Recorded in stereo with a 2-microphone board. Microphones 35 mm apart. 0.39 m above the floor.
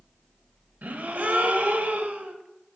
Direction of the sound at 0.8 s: 55° right (ahead or behind).